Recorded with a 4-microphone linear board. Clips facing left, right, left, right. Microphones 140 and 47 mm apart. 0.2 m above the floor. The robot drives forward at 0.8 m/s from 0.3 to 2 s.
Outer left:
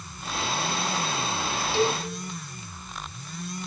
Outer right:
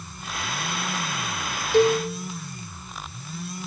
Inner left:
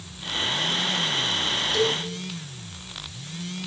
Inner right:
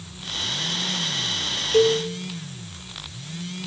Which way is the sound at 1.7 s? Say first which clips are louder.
Outer right 7 dB, inner right 8 dB; 50° right (ahead or behind).